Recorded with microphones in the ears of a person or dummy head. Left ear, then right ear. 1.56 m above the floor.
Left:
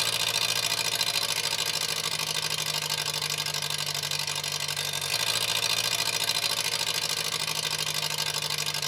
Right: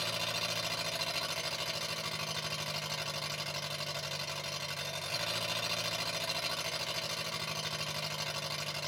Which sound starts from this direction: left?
An engine running, at 0.0 s.